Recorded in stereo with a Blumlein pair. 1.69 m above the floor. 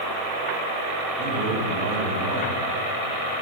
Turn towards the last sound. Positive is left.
turn(degrees=-45)